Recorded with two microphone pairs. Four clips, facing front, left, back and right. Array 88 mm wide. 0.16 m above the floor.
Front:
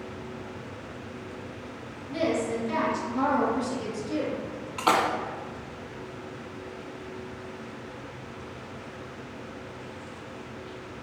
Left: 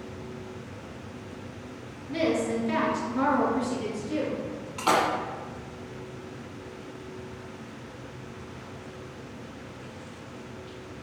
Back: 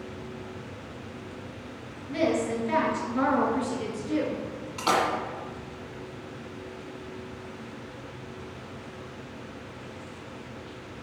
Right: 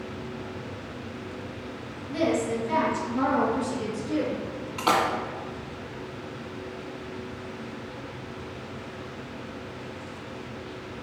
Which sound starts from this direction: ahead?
A splash, at 4.8 s.